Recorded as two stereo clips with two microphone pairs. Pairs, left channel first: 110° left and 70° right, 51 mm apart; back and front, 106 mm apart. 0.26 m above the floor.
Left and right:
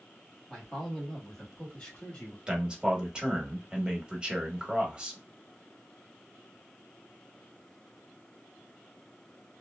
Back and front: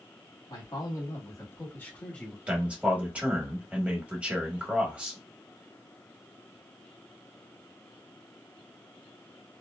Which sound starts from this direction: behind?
A man speaking, at 0.5 s.